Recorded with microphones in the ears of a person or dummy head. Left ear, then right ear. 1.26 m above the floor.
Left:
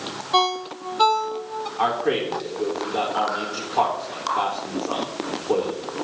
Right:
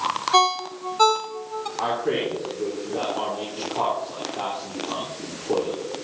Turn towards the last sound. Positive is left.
turn(degrees=50)  # may be behind; listen again after turning